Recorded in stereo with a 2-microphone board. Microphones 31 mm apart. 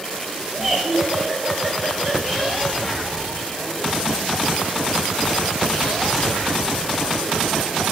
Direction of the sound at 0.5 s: 10° right (ahead or behind).